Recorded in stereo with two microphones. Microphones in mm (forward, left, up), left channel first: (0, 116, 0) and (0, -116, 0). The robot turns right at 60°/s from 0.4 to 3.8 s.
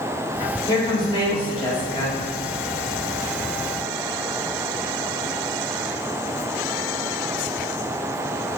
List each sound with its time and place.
0.7 s a woman speaking: 15° left (ahead or behind), 1.0 m